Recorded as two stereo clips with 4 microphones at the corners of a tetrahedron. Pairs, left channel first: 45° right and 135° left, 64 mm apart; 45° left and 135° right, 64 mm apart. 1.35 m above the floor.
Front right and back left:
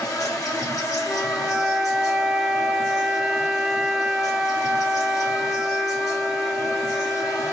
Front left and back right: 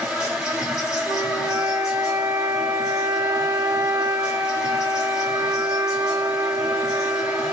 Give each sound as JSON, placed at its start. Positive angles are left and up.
{"t": 0.0, "sound": "an insect", "azimuth_deg": -55, "distance_m": 1.4}
{"t": 1.1, "sound": "a flute", "azimuth_deg": -140, "distance_m": 0.5}